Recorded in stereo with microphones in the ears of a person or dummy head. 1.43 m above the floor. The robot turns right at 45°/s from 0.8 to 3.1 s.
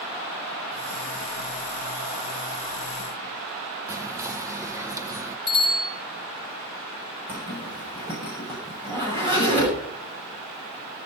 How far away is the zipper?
About 6.5 m.